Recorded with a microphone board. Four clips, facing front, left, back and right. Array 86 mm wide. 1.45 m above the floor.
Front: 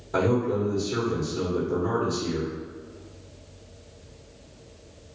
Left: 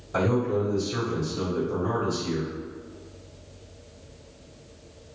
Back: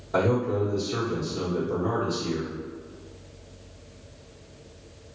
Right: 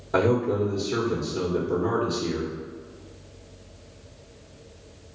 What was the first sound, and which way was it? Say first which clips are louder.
A man speaking: right 2 dB, even; 85° right.